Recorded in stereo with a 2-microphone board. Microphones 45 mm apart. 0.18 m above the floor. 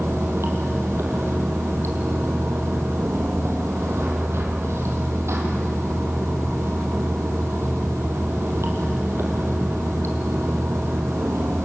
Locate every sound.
0.0 s running water: 75° right (ahead or behind), 3.5 m